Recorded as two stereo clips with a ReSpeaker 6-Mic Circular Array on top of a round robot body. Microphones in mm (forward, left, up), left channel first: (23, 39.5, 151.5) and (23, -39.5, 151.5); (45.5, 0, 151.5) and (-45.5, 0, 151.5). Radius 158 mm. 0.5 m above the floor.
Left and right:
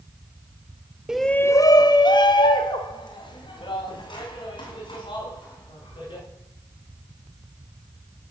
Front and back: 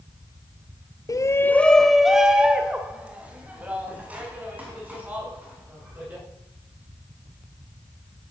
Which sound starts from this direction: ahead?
A shout, at 1.1 s.